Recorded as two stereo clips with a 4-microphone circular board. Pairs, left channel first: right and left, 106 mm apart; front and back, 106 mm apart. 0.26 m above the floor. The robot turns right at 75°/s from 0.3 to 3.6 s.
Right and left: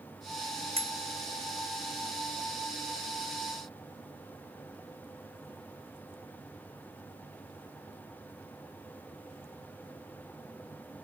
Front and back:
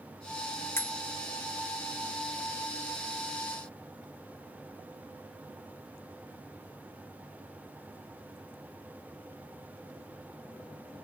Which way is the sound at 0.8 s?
65° left.